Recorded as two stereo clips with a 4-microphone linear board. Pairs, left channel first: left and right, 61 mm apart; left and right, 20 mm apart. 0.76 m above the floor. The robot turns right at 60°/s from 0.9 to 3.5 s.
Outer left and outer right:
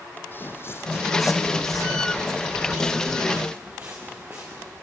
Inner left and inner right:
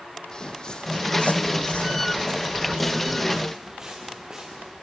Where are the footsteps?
35° left (ahead or behind), 1.5 m; by 4.7 s 35° right (ahead or behind), 4 m.